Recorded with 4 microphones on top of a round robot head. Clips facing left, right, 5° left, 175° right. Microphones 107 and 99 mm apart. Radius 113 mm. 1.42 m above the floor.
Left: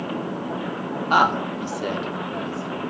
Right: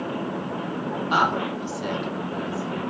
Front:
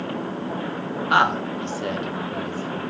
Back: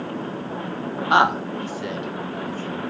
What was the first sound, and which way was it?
A woman speaking, 125° left.